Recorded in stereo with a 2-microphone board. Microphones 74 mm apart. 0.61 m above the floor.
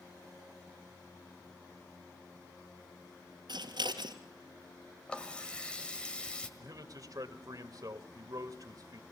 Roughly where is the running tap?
Centre.